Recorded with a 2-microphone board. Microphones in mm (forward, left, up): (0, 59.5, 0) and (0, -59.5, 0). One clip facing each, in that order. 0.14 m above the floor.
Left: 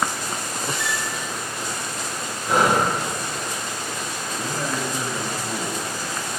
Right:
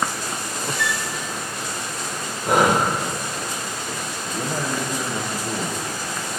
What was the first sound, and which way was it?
A flute, 75° right (ahead or behind).